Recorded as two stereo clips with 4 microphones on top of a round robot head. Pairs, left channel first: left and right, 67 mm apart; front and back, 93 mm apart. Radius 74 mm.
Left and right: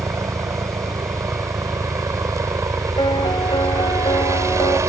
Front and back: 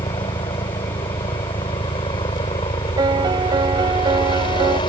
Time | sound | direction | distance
0.0 | a helicopter | 45° right | ?
3.0 | a piano | 135° left | ?